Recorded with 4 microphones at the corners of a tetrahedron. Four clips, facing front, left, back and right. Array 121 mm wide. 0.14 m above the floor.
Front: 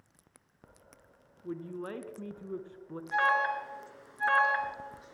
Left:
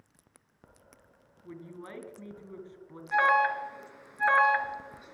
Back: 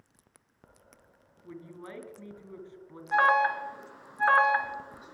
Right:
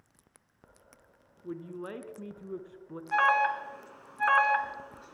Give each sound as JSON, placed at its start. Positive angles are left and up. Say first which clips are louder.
{"t": 1.4, "sound": "a man speaking", "louder": "right 5 dB, front 6 dB", "azimuth_deg": -45, "distance_m": 1.4}
{"t": 3.1, "sound": "an alarm", "louder": "left 1 dB, back 4 dB", "azimuth_deg": -160, "distance_m": 1.5}